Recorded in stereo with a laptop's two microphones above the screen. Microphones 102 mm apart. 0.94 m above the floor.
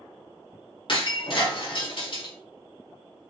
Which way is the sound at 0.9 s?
55° left (ahead or behind).